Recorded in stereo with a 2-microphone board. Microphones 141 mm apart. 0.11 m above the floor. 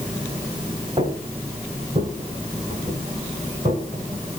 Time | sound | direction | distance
1.0 | footsteps | 40° right (ahead or behind) | 5.5 m